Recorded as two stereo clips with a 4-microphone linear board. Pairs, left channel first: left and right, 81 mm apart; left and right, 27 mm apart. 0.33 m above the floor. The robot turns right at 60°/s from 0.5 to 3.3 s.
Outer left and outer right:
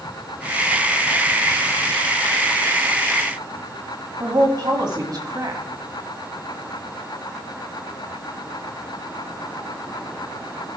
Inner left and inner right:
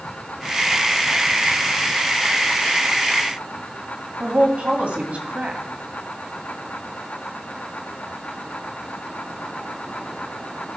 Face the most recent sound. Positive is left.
turn(degrees=-55)  # may be behind; listen again after turning